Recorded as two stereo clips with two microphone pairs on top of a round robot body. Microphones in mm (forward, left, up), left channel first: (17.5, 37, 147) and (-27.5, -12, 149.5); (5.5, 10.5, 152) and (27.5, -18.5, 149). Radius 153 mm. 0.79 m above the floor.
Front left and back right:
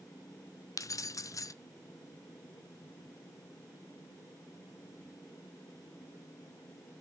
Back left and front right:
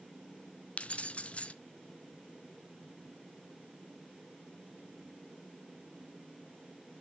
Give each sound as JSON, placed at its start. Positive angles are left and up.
{"t": 0.8, "sound": "keys jangling", "azimuth_deg": 70, "distance_m": 0.5}